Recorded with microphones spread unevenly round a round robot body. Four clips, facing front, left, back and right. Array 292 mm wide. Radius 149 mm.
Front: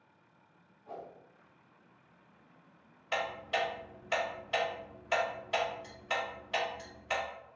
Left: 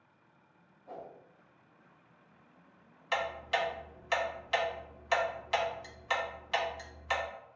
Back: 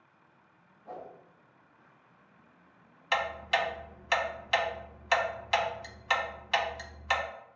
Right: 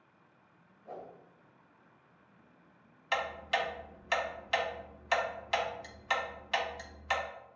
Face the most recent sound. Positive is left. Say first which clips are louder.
# even, back 4 dB
turn(degrees=-165)